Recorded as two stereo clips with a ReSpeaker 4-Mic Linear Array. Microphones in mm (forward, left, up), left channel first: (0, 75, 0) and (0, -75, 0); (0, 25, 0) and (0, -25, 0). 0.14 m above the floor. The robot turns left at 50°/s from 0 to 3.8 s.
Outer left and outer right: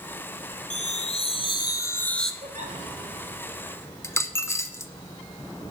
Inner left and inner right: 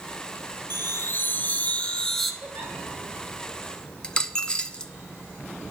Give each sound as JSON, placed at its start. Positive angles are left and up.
{"t": 0.7, "sound": "a chime", "azimuth_deg": 85, "distance_m": 1.0}
{"t": 2.4, "sound": "a giggle", "side_deg": -60, "distance_m": 2.5}
{"t": 4.0, "sound": "a dropped coin", "side_deg": 20, "distance_m": 0.6}